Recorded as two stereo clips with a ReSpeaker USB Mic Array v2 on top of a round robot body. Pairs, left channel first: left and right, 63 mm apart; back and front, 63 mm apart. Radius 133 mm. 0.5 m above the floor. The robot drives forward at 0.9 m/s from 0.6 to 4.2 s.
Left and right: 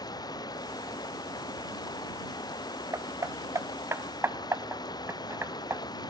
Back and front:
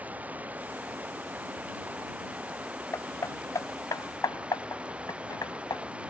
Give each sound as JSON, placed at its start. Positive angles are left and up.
{"t": 0.0, "sound": "running water", "azimuth_deg": 65}
{"t": 2.9, "sound": "hammering", "azimuth_deg": -135}